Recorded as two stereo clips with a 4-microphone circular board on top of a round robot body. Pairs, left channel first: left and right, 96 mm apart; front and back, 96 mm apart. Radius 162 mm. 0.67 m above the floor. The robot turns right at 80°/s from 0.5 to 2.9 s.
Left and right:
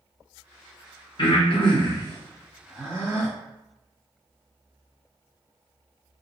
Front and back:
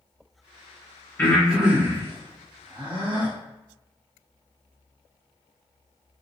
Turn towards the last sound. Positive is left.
turn(degrees=-155)